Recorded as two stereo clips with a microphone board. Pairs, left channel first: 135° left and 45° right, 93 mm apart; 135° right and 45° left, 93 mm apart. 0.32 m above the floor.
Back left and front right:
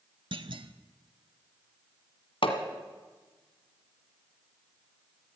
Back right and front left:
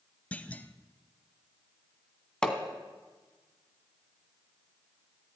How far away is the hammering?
About 1.5 m.